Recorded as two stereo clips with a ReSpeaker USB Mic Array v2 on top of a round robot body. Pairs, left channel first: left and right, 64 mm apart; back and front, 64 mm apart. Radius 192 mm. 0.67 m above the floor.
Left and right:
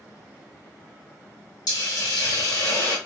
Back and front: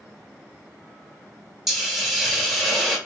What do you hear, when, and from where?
1.7 s a hiss: 90° left, 1.9 m